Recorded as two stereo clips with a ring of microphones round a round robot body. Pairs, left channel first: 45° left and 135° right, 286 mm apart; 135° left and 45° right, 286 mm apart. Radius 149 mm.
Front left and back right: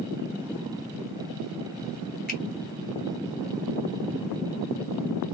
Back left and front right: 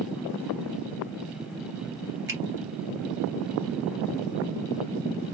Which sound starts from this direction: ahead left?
A finger snap, at 2.3 s.